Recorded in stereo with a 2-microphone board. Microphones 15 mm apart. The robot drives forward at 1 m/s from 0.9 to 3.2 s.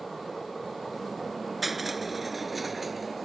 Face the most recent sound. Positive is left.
turn(degrees=-5)  # may be behind; listen again after turning